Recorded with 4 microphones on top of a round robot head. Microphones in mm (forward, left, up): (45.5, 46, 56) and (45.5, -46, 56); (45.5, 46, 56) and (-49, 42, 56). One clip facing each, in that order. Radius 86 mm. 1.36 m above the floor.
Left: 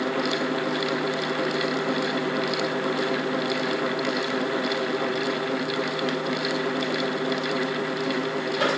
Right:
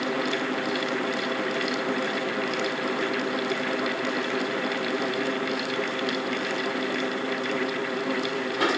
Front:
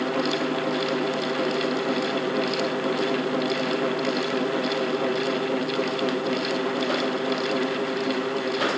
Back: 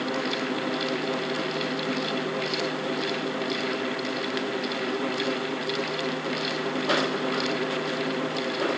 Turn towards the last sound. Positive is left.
No sound to turn to.